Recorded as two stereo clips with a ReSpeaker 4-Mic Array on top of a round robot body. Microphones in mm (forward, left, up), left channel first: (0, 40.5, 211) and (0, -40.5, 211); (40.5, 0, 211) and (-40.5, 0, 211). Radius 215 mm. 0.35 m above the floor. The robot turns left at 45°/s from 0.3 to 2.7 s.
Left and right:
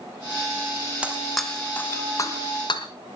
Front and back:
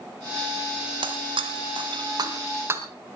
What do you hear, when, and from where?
1.0 s breaking glass: 165° right, 2.0 m; by 2.8 s 120° left, 2.0 m